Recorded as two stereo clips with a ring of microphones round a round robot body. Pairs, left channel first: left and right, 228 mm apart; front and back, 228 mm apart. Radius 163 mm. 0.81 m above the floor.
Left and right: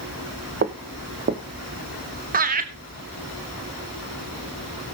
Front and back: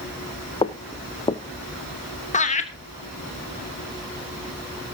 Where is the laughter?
50° right, 1.1 m.